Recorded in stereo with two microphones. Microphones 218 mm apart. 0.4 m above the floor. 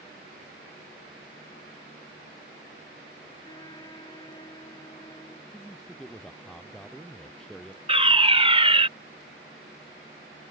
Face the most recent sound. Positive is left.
turn(degrees=-25)  # may be behind; listen again after turning